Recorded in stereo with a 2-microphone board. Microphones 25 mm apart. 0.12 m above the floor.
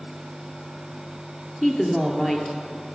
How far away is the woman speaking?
About 1.8 m.